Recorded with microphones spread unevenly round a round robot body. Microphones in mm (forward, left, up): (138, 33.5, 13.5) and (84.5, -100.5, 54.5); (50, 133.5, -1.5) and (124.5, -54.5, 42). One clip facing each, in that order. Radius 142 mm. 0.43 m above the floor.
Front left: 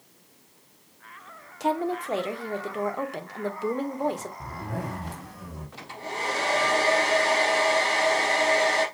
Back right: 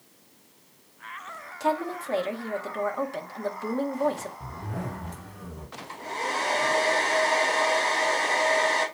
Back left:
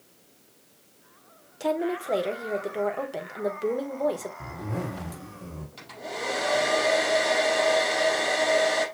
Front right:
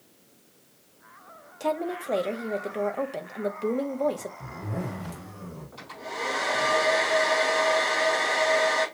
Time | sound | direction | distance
1.6 | a woman speaking | 45° left | 1.2 m
4.4 | a zipper | 75° left | 4 m
5.8 | a hair dryer | 90° left | 4.5 m